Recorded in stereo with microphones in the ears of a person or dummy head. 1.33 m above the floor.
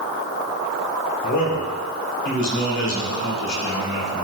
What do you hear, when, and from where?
1.2 s a man speaking: 60° left (ahead or behind), 2 m